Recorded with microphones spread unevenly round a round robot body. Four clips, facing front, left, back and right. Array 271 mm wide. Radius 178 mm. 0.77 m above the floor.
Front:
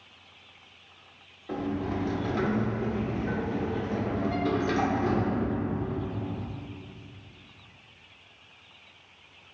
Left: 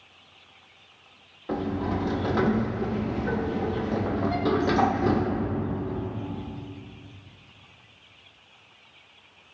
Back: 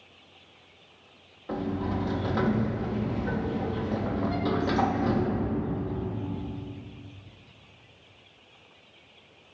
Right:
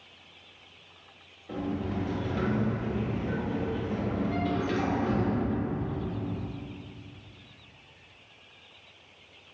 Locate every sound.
1.5 s a sliding door: 95° left, 0.6 m